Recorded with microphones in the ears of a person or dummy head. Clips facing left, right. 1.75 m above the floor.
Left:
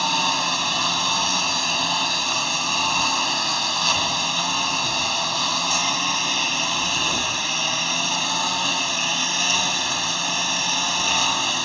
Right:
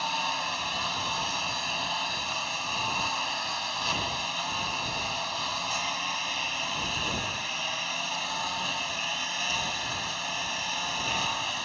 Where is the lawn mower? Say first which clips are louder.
Left 8 dB; 65° left (ahead or behind).